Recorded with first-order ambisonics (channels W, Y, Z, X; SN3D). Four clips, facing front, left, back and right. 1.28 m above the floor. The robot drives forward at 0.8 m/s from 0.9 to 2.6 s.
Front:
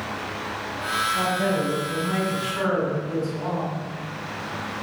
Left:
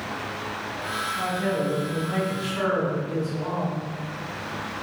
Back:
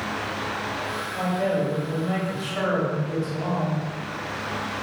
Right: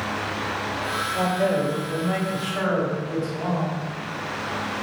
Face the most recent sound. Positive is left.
turn(degrees=-125)